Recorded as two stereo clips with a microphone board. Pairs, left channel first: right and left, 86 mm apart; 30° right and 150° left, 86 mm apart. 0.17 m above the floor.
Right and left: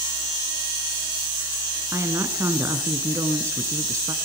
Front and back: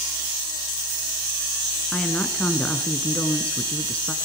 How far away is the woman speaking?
About 1.8 m.